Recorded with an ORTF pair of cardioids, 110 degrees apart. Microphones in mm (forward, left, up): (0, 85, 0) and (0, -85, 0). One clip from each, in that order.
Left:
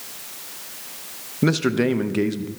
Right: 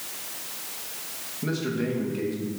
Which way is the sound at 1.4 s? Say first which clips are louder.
Left 9 dB; 65° left.